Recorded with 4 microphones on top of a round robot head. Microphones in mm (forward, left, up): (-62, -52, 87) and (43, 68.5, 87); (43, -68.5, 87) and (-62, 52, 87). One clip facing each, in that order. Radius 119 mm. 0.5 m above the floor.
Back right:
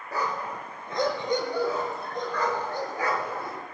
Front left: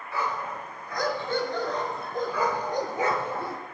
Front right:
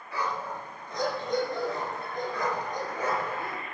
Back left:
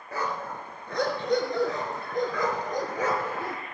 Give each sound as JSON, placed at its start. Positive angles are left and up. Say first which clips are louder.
{"t": 0.1, "sound": "a dog barking", "louder": "even, back left 1 dB", "azimuth_deg": 180, "distance_m": 3.0}